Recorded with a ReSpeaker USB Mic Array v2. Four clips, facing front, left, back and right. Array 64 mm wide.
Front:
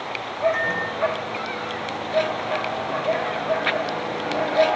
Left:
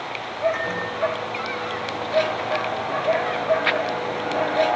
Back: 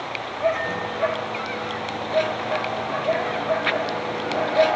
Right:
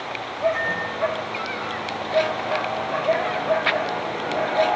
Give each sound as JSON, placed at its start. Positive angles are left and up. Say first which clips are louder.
{"t": 0.5, "sound": "a microwave", "louder": "right 1 dB, front 2 dB", "azimuth_deg": 40, "distance_m": 7.5}